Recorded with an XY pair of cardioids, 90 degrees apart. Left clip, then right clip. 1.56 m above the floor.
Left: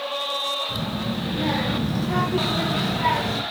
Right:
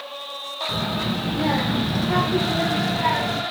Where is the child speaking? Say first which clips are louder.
Right 3 dB; 50° right, 1.7 m; by 3.4 s 5° left, 1.3 m.